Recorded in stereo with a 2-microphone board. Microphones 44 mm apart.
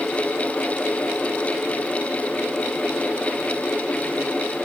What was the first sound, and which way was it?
Only background noise.